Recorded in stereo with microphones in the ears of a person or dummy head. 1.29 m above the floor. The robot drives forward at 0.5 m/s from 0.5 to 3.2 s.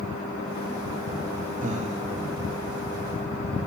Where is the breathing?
45° right (ahead or behind), 0.9 m; by 2.0 s 35° right (ahead or behind), 1.0 m.